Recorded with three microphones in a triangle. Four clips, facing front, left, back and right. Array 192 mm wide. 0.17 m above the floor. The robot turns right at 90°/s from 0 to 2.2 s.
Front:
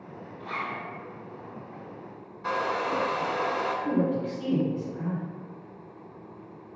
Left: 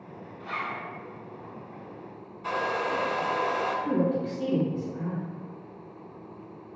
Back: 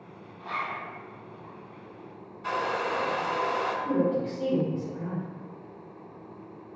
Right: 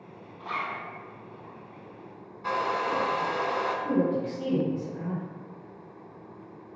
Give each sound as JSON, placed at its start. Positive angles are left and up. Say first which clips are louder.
{"t": 0.4, "sound": "a zipper", "louder": "right 1 dB, back 1 dB", "azimuth_deg": -95, "distance_m": 0.8}
{"t": 2.4, "sound": "a hair dryer", "louder": "right 1 dB, front 1 dB", "azimuth_deg": -30, "distance_m": 0.5}
{"t": 3.9, "sound": "a woman speaking", "louder": "right 1 dB, back 1 dB", "azimuth_deg": -10, "distance_m": 1.2}